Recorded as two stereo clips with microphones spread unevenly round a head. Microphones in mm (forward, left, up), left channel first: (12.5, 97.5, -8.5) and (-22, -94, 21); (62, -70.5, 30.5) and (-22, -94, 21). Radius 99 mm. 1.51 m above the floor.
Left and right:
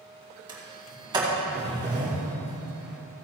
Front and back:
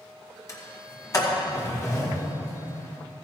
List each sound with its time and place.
0.5 s a sliding door: 30° right, 2.5 m